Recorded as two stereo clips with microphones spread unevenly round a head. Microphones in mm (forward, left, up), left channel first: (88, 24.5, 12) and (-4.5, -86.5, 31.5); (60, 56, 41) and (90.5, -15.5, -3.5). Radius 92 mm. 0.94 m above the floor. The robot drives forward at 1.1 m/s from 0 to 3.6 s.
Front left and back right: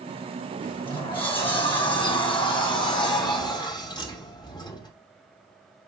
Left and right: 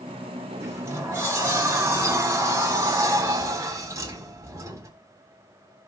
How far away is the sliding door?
About 6 m.